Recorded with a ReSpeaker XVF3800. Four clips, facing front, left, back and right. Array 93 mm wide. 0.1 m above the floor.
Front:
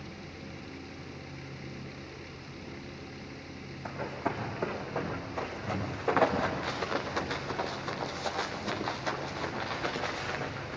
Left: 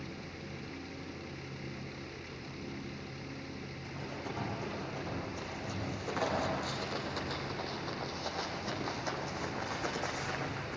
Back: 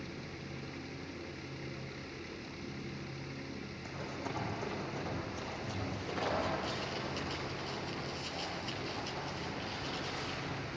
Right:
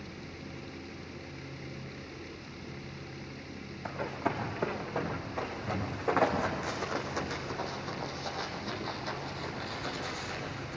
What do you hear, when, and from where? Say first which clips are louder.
3.9 s running footsteps: right 10 dB, front 9 dB; 55° right, 5 m; by 10.8 s 30° left, 4.5 m